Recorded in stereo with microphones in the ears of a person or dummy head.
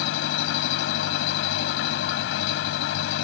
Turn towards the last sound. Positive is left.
turn(degrees=85)